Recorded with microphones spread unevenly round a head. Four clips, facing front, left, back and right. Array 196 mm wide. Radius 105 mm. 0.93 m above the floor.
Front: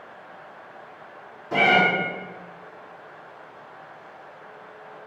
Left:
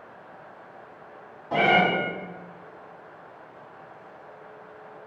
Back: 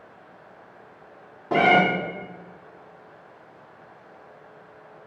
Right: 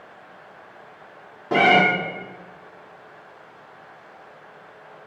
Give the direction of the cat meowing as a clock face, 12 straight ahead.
4 o'clock.